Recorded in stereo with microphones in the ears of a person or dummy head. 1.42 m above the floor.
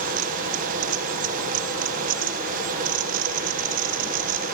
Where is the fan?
45° right (ahead or behind), 1.7 m.